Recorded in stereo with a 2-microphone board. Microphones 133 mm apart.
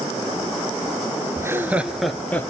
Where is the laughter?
25° right (ahead or behind), 1.5 m; by 2.5 s 15° left (ahead or behind), 1.5 m.